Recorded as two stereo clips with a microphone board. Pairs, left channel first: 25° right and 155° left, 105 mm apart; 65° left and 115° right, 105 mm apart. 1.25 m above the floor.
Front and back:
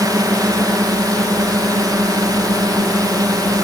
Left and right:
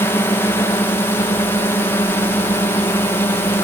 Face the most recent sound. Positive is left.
turn(degrees=125)